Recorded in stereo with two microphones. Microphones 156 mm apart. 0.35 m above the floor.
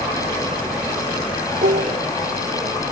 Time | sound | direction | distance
1.6 | dishes clattering | 80° right | ?